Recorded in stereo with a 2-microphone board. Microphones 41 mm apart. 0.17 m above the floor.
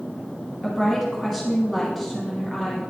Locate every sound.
0.6 s a woman speaking: 5° right (ahead or behind), 1.3 m